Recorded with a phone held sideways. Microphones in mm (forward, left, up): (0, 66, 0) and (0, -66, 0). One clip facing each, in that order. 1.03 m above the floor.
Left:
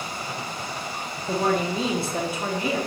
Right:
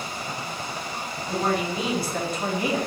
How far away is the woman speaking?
About 1.1 m.